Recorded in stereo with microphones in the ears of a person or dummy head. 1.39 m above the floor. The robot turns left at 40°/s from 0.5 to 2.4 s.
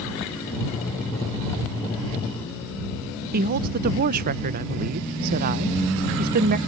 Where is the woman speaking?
45° right (ahead or behind).